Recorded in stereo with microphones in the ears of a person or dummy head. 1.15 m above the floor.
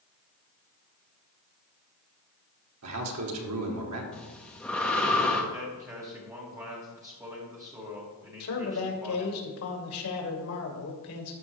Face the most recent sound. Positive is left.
turn(degrees=75)  # may be behind; listen again after turning